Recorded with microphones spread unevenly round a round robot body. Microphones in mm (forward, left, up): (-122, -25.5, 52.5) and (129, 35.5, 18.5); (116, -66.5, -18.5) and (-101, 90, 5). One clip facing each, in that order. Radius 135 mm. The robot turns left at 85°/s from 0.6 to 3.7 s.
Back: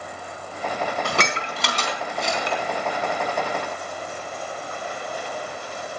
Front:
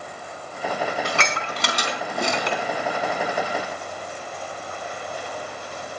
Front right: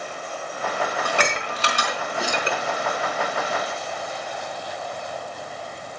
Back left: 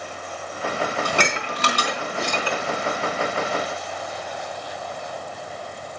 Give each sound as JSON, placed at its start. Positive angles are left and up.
{"t": 1.1, "sound": "dishes clattering", "azimuth_deg": 155, "distance_m": 3.5}